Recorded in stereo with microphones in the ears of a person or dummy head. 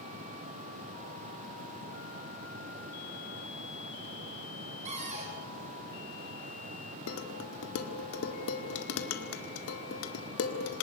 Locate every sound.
4.8 s a cupboard door: 40° right (ahead or behind), 3.5 m
7.1 s dishes clattering: 85° left, 1.9 m